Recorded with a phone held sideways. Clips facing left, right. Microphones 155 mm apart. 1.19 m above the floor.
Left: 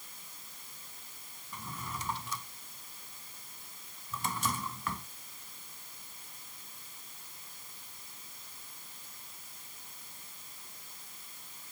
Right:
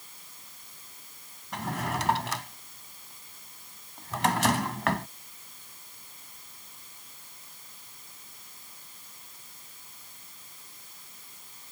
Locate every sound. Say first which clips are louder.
1.5 s a drawer: right 11 dB; 85° right